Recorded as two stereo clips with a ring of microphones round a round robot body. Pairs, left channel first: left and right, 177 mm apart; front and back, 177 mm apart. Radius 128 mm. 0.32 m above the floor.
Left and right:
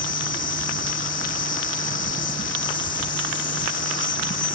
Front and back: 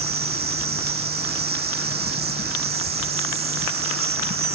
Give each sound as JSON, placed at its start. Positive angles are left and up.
{"t": 0.0, "sound": "an insect", "azimuth_deg": 140}